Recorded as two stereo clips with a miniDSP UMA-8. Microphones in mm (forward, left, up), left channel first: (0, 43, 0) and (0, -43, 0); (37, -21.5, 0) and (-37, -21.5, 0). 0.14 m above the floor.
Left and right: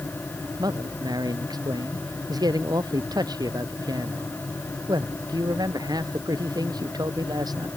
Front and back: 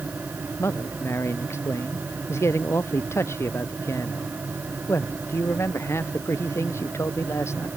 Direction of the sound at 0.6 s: 55° right.